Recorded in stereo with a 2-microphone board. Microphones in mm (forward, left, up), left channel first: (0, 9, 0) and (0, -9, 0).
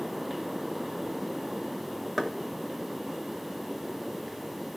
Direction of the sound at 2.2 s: 5° right (ahead or behind).